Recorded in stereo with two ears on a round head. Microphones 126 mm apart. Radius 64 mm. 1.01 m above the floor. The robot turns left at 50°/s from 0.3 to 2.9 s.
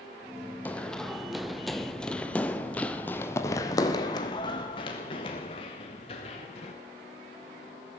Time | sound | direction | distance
0.7 | running footsteps | 10° left (ahead or behind) | 1.7 m